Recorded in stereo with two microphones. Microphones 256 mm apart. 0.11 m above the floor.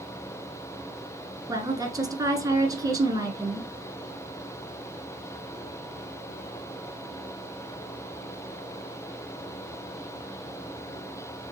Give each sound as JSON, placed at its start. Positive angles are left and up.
{"t": 1.5, "sound": "a woman speaking", "side_deg": -15, "distance_m": 1.1}